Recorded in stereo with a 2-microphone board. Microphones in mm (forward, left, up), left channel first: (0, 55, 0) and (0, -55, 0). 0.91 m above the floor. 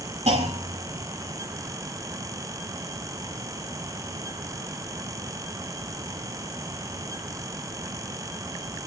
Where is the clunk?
85° right, 6.5 m.